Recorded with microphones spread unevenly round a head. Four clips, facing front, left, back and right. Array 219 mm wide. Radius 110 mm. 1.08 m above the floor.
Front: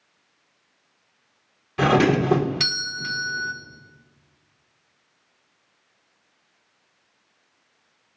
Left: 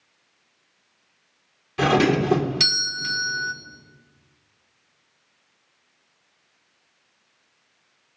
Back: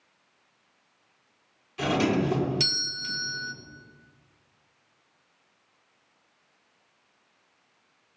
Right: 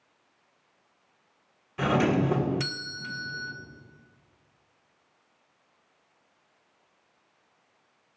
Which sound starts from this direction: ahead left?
A doorbell, at 1.8 s.